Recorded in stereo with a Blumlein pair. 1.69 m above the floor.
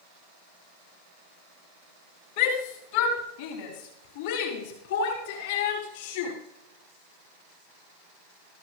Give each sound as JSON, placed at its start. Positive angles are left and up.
{"t": 2.4, "sound": "a shout", "azimuth_deg": 50, "distance_m": 4.5}